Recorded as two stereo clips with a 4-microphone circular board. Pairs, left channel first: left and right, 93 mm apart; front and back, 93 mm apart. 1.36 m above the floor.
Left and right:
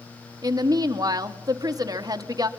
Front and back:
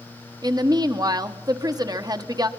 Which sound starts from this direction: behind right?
A woman speaking, at 0.4 s.